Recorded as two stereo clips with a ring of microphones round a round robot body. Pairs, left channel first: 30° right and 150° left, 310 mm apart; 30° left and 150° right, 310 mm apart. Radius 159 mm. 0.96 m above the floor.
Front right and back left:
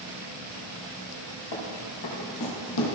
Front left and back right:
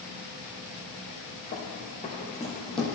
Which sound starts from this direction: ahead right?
Running footsteps, at 1.5 s.